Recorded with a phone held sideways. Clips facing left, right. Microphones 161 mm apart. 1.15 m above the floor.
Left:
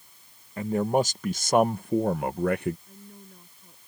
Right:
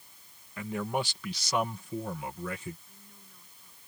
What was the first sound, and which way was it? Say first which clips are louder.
A man speaking: left 8 dB; 35° left (ahead or behind).